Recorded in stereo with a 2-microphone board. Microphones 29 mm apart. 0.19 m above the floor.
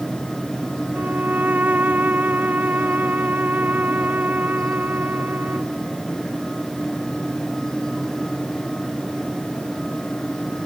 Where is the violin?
85° right.